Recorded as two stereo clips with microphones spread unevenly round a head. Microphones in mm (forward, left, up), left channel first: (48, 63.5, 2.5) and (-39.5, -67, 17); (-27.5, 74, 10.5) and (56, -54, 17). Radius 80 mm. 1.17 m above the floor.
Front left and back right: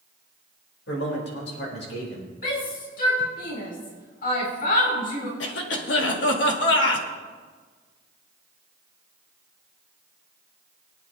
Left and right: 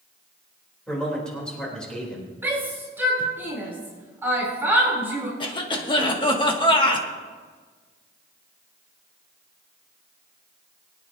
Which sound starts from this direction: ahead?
A shout, at 2.4 s.